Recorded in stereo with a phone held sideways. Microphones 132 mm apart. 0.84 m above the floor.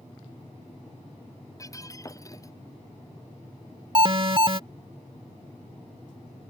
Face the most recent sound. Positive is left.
turn(degrees=-40)  # may be behind; listen again after turning